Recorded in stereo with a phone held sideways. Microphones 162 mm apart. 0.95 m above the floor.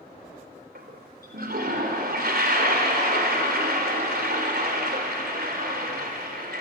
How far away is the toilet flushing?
About 3.5 m.